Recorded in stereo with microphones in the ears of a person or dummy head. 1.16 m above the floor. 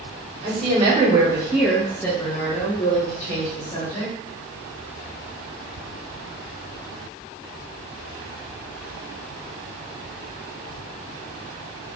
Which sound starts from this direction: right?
A woman speaking, at 0.4 s.